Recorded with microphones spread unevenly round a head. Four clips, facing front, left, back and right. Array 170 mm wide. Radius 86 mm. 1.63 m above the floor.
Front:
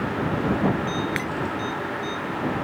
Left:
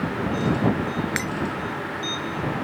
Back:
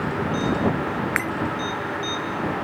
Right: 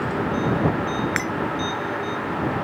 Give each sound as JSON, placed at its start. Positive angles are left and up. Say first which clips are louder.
{"t": 1.2, "sound": "breaking glass", "louder": "right 3 dB, back 2 dB", "azimuth_deg": -175}